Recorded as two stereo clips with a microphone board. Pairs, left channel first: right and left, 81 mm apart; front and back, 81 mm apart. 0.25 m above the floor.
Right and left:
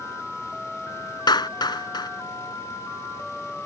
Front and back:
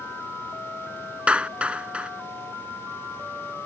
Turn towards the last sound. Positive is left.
turn(degrees=-105)